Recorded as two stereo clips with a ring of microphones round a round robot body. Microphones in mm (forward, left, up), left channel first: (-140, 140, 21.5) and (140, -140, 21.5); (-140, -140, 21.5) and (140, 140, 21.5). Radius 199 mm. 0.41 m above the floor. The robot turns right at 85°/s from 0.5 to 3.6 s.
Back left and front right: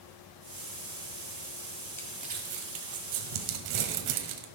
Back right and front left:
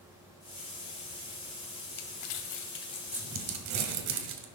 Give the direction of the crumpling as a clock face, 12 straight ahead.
5 o'clock.